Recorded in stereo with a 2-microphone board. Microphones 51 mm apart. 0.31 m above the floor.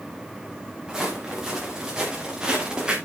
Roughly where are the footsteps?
Centre.